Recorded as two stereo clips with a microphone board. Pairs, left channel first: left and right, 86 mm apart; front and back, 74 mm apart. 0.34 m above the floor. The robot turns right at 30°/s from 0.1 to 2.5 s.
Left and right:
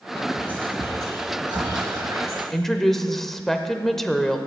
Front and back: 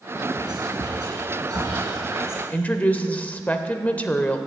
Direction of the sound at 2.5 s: 10° left.